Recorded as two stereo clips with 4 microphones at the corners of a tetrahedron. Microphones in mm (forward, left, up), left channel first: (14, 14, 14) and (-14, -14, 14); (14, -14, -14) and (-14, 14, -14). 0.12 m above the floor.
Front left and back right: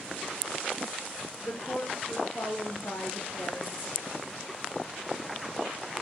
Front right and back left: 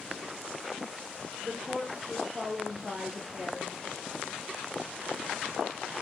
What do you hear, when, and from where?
1.4 s a woman speaking: 65° left, 6.5 m; by 3.8 s 50° left, 7 m